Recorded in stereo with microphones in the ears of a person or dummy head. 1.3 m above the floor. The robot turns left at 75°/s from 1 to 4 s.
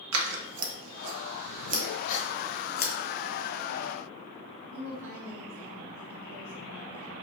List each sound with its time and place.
0.1 s scissors: 85° right, 0.7 m; by 2.9 s 55° left (ahead or behind), 0.7 m
2.1 s a gasp: 45° left (ahead or behind), 0.7 m; by 2.3 s 30° left (ahead or behind), 0.7 m
4.7 s a woman speaking: 50° right (ahead or behind), 1.2 m